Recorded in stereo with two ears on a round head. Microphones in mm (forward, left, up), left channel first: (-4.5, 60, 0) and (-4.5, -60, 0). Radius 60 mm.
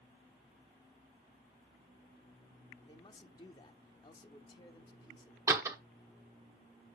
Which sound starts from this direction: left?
A man speaking, at 2.9 s.